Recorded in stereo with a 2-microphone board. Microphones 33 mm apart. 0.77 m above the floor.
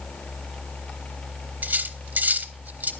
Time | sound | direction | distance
1.6 | cutlery clinking | 60° right (ahead or behind) | 0.9 m